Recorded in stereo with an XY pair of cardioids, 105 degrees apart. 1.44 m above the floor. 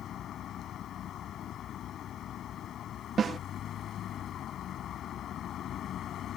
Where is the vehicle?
65° left.